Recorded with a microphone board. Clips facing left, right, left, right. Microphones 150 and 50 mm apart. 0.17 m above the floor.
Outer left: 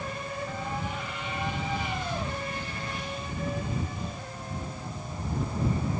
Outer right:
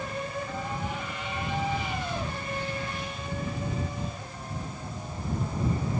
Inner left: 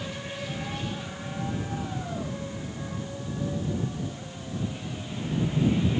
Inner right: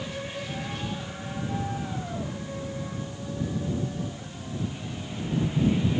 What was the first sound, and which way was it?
Only background noise.